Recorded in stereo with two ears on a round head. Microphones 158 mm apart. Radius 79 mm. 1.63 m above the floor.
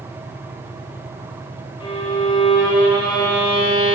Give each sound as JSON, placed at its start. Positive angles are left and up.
{"t": 1.8, "sound": "a violin", "side_deg": 30, "distance_m": 1.3}